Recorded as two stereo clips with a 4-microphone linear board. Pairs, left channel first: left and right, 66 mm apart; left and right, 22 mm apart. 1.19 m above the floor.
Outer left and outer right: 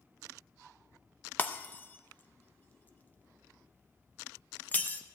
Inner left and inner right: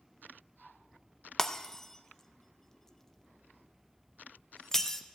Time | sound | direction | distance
1.4 | breaking glass | 30° left (ahead or behind) | 0.5 m